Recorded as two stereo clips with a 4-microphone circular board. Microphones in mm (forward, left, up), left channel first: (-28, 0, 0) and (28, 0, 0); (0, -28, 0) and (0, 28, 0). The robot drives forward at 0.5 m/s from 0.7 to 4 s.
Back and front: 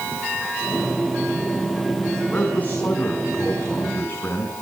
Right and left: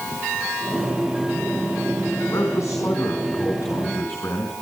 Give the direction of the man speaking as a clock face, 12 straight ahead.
4 o'clock.